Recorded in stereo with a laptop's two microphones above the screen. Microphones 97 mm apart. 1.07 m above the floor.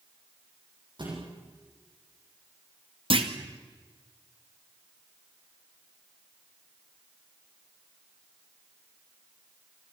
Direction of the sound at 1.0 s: 55° right (ahead or behind).